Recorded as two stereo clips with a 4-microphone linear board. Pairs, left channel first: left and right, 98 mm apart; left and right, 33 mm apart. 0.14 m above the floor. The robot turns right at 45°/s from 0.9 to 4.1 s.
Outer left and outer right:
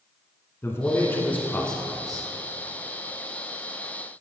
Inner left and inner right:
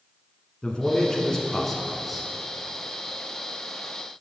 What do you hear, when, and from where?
0.6 s a man speaking: 125° left, 1.2 m; by 2.3 s 170° right, 1.2 m